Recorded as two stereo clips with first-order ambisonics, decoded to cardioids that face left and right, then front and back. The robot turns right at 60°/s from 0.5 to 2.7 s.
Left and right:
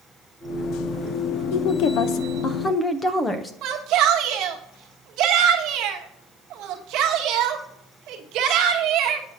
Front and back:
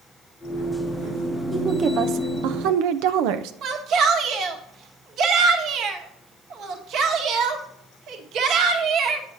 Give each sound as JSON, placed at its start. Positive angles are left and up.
{"t": 1.5, "sound": "a woman speaking", "azimuth_deg": 100, "distance_m": 0.7}
{"t": 3.6, "sound": "a shout", "azimuth_deg": -130, "distance_m": 1.2}